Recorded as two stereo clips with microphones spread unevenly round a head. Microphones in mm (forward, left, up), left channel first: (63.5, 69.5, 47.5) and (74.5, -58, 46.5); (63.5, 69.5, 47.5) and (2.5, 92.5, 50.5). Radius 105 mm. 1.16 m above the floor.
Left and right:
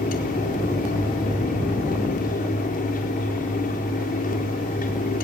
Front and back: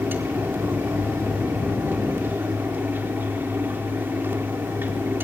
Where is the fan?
100° left, 4 m.